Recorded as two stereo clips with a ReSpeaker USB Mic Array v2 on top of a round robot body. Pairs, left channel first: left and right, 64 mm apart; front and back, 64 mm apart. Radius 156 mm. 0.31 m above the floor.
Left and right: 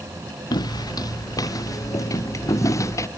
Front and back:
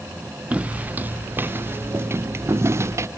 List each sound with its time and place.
0.5 s footsteps: 110° left; by 3.1 s 135° left